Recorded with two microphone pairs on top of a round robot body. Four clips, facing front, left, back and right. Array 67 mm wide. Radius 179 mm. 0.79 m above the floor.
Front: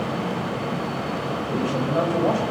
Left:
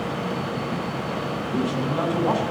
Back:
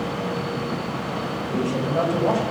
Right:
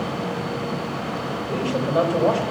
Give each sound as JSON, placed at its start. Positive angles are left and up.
{"t": 1.5, "sound": "a man speaking", "azimuth_deg": -70, "distance_m": 5.5}